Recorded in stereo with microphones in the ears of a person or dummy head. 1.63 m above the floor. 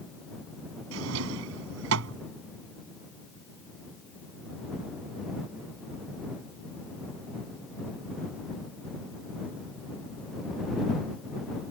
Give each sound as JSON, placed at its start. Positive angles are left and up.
{"t": 0.9, "sound": "a drawer", "side_deg": -70}